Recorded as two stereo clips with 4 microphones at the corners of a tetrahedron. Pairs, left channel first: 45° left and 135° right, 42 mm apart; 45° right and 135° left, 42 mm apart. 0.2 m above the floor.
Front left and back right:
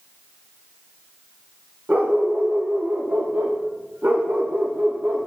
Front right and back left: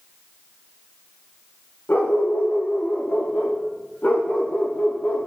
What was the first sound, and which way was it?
A dog barking, 85° right.